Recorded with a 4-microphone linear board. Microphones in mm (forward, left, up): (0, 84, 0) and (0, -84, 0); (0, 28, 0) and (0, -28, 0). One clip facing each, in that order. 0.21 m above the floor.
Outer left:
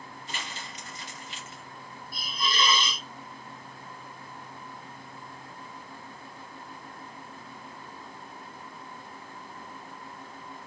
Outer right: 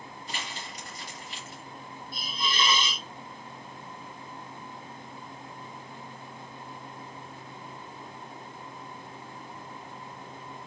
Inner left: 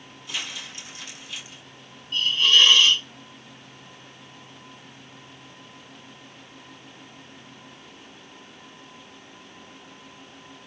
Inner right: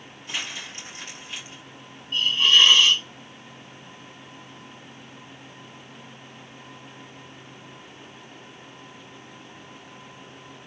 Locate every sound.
0.3 s crumpling: 40° right (ahead or behind), 3.5 m
2.1 s a hiss: 25° right (ahead or behind), 1.4 m